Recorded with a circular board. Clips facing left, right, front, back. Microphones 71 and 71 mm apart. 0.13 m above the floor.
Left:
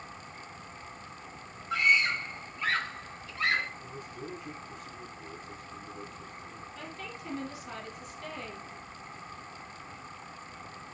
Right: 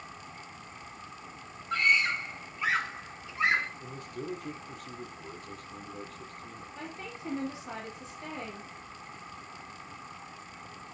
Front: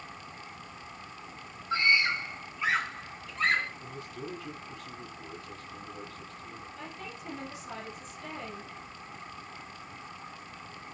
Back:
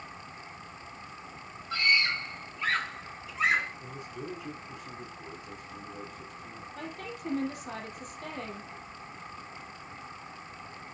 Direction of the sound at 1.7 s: 5° left.